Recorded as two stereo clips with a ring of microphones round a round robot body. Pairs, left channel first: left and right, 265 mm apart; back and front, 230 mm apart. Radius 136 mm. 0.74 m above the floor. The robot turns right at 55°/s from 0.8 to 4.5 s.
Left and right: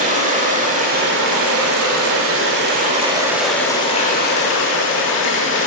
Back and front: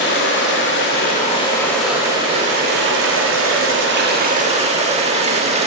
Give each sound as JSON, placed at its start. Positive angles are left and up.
{"t": 0.0, "sound": "running water", "azimuth_deg": -145, "distance_m": 1.6}